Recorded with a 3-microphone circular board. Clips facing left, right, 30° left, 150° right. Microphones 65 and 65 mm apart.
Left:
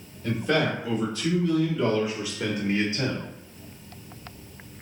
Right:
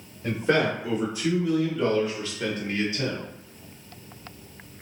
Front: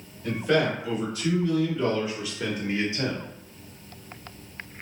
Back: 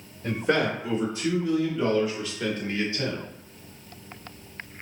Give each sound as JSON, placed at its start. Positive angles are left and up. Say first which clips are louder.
{"t": 0.2, "sound": "a man speaking", "louder": "right 1 dB, front 1 dB", "azimuth_deg": -125, "distance_m": 1.4}